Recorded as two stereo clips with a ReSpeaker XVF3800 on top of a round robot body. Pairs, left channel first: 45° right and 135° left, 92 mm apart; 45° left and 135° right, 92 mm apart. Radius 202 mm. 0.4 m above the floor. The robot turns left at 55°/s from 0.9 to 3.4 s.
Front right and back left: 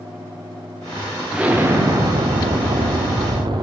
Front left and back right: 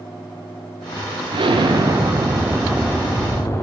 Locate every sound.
1.3 s an explosion: 140° right, 0.7 m; by 3.6 s 105° left, 0.7 m